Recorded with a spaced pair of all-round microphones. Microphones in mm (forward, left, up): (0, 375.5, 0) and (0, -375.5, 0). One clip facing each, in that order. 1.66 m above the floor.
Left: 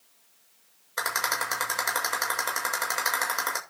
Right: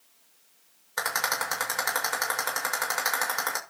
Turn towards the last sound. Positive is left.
turn(degrees=-25)  # may be behind; listen again after turning